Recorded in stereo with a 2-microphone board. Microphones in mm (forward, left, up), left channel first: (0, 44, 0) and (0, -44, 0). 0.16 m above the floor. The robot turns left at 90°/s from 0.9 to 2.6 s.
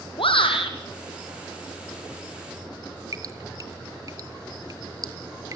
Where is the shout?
80° left, 4.5 m.